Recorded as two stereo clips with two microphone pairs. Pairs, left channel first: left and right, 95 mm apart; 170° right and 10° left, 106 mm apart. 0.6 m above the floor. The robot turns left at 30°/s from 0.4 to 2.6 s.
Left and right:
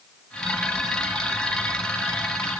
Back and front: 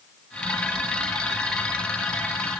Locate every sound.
Only background noise.